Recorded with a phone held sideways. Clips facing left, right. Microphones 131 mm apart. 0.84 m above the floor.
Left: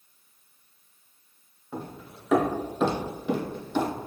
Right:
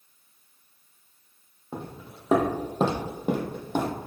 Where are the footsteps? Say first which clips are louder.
Even; 25° right (ahead or behind), 1.3 m; by 4.1 s 55° right (ahead or behind), 1.4 m.